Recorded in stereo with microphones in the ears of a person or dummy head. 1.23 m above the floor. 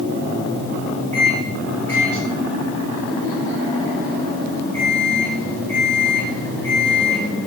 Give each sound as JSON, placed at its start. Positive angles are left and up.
{"t": 1.1, "sound": "a microwave", "side_deg": 10, "distance_m": 2.5}